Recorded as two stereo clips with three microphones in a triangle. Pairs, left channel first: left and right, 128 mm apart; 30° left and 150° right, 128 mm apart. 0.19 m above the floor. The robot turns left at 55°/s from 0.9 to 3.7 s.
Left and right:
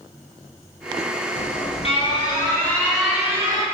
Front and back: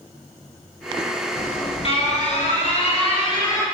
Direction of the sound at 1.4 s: 90° left.